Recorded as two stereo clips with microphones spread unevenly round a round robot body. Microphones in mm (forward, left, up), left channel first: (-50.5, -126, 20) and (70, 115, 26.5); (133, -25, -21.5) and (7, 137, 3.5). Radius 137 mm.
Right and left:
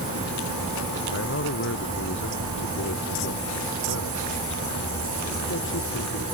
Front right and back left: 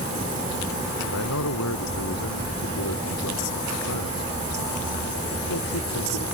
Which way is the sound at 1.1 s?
70° right.